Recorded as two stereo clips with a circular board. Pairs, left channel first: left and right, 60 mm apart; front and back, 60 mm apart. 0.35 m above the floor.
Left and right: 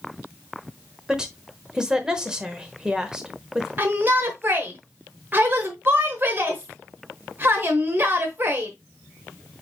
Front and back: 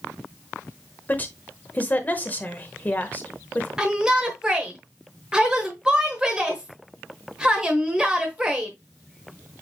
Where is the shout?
110° right, 0.9 m.